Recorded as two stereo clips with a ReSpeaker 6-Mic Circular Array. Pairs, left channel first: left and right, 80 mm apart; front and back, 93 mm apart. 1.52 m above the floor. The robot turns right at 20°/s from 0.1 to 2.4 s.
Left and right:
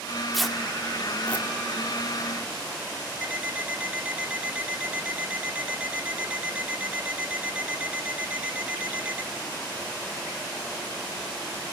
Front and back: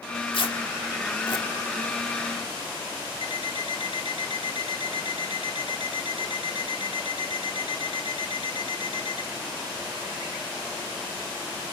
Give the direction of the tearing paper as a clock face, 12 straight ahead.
12 o'clock.